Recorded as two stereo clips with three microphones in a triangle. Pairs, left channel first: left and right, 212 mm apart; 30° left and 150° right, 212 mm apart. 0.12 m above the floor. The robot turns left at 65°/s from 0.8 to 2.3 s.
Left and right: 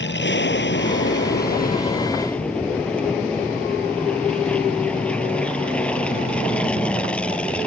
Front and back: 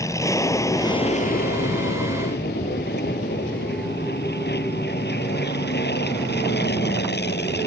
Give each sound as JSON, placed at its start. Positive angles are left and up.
{"t": 0.0, "sound": "an aircraft", "azimuth_deg": 105}